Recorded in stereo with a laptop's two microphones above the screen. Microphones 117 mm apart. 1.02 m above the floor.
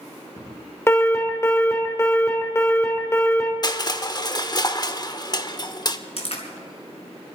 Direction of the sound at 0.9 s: 20° left (ahead or behind).